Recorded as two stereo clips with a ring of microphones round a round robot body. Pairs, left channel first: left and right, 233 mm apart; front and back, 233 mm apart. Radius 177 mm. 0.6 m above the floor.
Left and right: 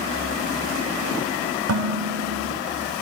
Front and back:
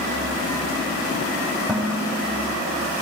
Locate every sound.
1.7 s dishes clattering: 95° right, 2.5 m